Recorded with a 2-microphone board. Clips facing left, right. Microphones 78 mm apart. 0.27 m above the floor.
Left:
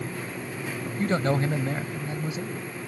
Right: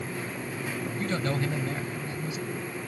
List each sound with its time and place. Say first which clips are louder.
1.0 s a man speaking: left 6 dB; 30° left (ahead or behind)